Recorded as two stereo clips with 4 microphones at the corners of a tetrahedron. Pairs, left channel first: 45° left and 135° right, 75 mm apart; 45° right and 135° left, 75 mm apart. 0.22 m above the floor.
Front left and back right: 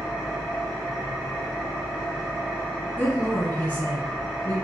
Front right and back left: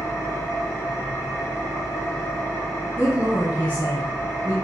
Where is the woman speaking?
85° left, 1.6 m.